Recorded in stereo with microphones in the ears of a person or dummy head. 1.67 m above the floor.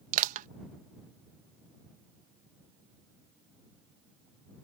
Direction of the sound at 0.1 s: 45° right (ahead or behind).